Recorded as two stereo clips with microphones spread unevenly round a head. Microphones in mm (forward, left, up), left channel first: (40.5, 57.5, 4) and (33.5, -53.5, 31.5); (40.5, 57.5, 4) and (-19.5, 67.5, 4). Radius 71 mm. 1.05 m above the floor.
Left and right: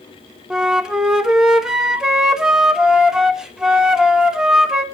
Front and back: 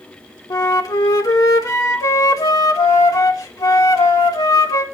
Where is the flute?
5° right, 1.4 m.